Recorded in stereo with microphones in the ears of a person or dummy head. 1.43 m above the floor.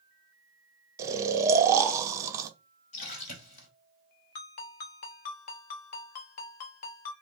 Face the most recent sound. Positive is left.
turn(degrees=45)  # may be behind; listen again after turning